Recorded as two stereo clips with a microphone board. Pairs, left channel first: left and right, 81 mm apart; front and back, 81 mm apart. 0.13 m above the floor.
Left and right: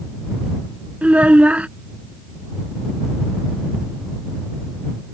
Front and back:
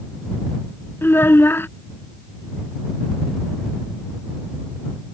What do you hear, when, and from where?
1.0 s a child speaking: 30° right